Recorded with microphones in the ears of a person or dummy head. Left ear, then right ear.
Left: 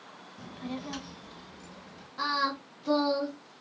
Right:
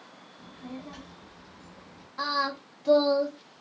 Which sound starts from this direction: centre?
Singing, at 2.2 s.